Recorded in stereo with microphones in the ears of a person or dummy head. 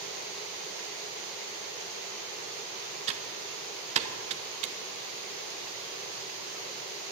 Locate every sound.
3.1 s typing on a keyboard: 35° right (ahead or behind), 1.0 m